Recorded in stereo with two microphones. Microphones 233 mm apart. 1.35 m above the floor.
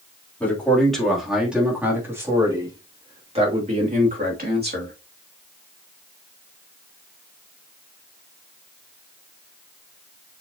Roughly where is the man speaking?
Centre.